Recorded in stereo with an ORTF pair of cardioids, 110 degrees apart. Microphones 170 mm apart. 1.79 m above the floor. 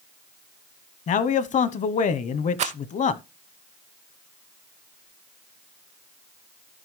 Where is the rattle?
40° right, 0.5 m.